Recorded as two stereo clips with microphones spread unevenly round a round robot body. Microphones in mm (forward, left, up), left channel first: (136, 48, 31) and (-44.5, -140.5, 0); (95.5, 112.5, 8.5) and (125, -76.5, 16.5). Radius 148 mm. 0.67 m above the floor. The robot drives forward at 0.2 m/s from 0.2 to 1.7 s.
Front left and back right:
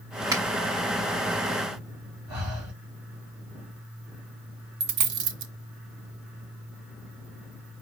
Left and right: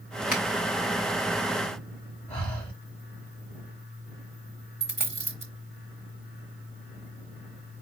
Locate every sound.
0.3 s a finger snap: 150° left, 0.9 m
2.3 s breathing: 155° left, 1.6 m
4.8 s a dropped coin: 170° right, 0.8 m